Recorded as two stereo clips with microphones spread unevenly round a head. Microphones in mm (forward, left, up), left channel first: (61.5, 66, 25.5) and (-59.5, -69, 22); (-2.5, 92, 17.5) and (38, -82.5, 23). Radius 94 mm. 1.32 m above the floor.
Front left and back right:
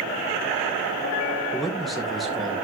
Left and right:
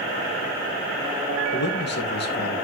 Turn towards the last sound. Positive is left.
turn(degrees=140)